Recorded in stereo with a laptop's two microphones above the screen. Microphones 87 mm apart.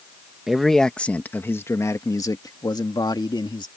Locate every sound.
0.5 s a man speaking: 5° right (ahead or behind); by 3.7 s 55° left (ahead or behind)